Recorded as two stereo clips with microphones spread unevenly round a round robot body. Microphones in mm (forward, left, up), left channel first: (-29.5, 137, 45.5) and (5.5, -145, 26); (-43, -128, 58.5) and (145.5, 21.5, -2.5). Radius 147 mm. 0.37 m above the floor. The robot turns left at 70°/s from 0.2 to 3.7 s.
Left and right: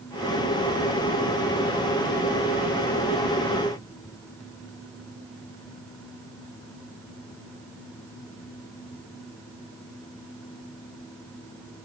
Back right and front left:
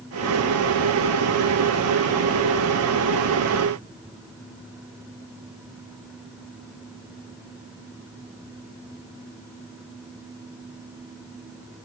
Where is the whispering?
I don't hear whispering.